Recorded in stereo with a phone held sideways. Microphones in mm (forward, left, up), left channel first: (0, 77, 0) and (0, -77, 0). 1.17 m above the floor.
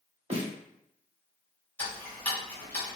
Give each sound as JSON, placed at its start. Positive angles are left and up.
{"t": 0.3, "sound": "a snare drum", "side_deg": -45, "distance_m": 1.1}
{"t": 1.8, "sound": "ticking", "side_deg": 10, "distance_m": 1.3}